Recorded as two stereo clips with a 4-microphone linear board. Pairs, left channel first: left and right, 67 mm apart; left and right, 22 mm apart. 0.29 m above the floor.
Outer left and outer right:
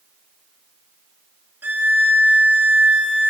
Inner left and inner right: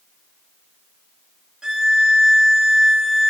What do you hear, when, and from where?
1.6 s a violin: 30° right (ahead or behind), 1.0 m